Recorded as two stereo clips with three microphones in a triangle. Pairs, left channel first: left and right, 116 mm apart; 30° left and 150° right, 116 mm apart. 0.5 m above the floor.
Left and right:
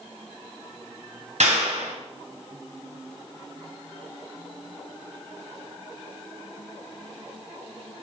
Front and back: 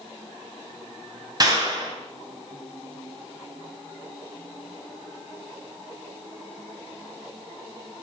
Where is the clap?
95° right, 3 m.